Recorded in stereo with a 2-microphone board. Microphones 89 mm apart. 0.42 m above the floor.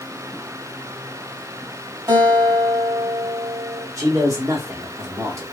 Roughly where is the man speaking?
Right.